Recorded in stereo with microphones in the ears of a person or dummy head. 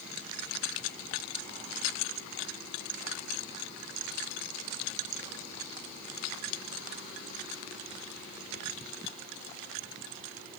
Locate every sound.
Only background noise.